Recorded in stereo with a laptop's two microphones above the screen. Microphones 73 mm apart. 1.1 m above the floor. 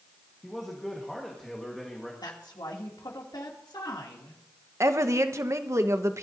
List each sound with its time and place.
0.4 s a man speaking: 5° left (ahead or behind), 1.4 m
2.2 s a woman speaking: 80° left, 2.5 m
4.8 s a woman speaking: 40° right (ahead or behind), 1.0 m